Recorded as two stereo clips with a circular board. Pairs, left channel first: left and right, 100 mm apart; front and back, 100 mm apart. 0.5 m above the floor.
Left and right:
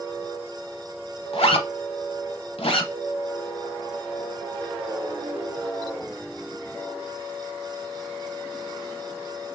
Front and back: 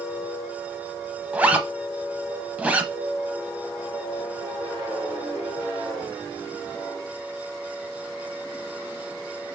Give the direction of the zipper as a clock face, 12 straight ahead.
9 o'clock.